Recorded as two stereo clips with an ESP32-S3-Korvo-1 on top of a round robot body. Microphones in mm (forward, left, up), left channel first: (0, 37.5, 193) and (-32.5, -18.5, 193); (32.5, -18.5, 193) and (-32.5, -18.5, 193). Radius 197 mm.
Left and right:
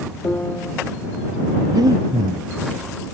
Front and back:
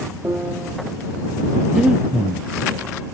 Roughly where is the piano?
Behind left.